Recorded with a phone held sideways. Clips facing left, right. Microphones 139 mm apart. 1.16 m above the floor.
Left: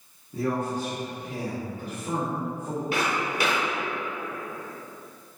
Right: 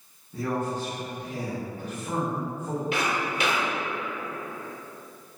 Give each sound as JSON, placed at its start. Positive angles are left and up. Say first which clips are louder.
{"t": 0.3, "sound": "a man speaking", "louder": "left 1 dB", "side_deg": 15, "distance_m": 0.6}
{"t": 2.9, "sound": "footsteps", "louder": "left 3 dB", "side_deg": 40, "distance_m": 1.5}